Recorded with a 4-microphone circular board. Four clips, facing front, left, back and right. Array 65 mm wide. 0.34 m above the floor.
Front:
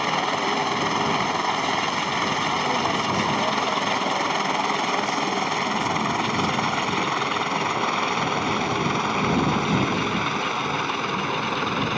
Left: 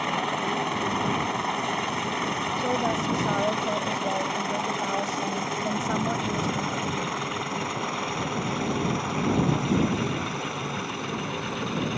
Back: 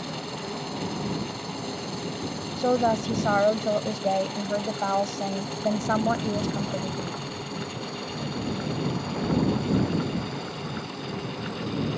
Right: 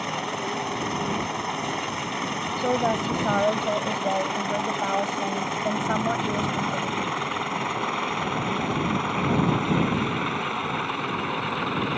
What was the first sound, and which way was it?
A helicopter, 15° left.